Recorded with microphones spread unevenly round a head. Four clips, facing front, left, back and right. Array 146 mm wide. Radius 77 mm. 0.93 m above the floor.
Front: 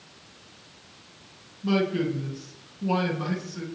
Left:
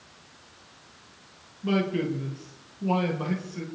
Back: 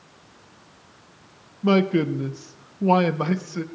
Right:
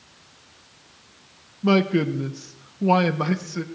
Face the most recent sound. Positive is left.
turn(degrees=-145)